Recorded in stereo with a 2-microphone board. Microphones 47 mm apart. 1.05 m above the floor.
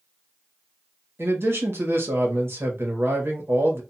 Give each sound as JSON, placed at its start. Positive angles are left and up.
{"t": 1.2, "sound": "a man speaking", "side_deg": -60, "distance_m": 1.1}